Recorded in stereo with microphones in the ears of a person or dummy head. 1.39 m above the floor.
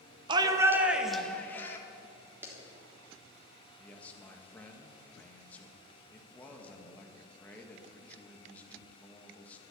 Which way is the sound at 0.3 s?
25° right (ahead or behind).